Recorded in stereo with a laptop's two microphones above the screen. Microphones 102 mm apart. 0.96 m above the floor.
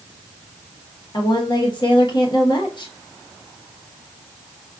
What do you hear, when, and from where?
1.1 s a woman speaking: 45° left (ahead or behind), 1.1 m